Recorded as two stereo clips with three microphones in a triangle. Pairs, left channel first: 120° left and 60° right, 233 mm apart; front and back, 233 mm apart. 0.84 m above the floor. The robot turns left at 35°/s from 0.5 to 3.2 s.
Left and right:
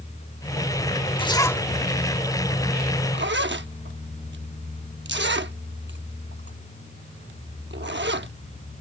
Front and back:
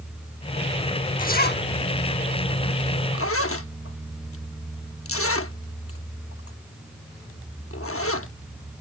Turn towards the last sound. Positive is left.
turn(degrees=-20)